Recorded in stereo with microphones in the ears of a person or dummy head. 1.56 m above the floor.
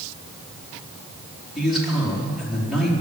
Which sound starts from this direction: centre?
A man speaking, at 1.6 s.